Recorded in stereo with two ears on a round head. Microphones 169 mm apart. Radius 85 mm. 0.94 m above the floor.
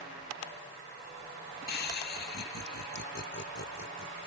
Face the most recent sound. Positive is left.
turn(degrees=65)  # may be behind; listen again after turning